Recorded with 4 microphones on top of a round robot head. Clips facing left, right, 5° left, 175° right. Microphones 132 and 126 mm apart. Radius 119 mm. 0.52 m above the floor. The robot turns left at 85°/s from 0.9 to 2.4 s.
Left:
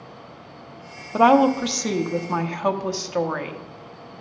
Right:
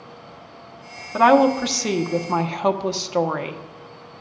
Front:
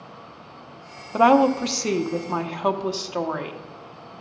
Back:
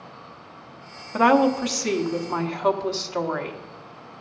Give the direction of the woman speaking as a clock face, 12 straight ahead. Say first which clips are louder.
Right 1 dB, front 2 dB; 10 o'clock.